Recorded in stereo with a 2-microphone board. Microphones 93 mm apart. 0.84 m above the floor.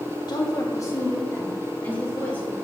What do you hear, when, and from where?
0.3 s a woman speaking: 45° left (ahead or behind), 1.0 m; by 2.5 s 15° left (ahead or behind), 3 m